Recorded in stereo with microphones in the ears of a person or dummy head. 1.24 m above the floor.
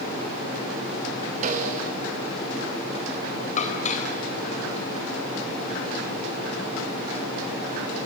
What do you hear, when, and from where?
1.4 s a snare drum: 40° right (ahead or behind), 4.5 m
3.6 s dishes clattering: 35° left (ahead or behind), 4 m